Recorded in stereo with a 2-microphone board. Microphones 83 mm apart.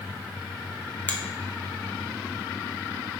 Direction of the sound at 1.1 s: 20° left (ahead or behind).